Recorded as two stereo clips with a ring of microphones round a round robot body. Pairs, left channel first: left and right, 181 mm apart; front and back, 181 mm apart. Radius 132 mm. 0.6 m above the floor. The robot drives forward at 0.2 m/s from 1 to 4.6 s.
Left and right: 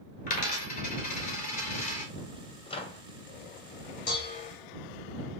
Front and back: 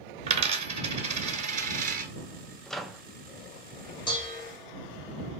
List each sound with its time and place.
0.3 s a dropped coin: 140° left, 0.8 m; by 2.1 s 150° left, 0.9 m
2.7 s a microwave: 85° left, 0.7 m; by 3.0 s 95° left, 0.7 m
4.1 s dishes clattering: 65° left, 1.8 m; by 4.5 s 70° left, 1.8 m